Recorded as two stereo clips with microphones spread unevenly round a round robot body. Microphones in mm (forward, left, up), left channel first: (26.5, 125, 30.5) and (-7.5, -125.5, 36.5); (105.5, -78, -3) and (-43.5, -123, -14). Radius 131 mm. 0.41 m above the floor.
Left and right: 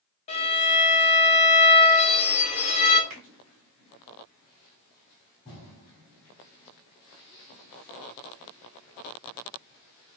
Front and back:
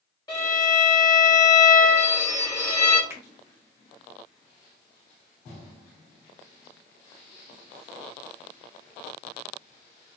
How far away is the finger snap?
About 1.9 m.